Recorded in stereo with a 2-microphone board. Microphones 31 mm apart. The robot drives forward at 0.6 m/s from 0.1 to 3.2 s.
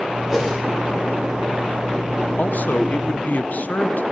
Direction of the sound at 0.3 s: 5° right (ahead or behind).